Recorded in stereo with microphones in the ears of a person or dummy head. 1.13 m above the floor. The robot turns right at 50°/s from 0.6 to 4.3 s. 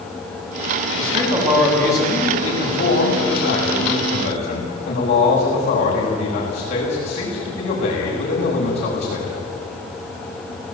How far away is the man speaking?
About 8.5 m.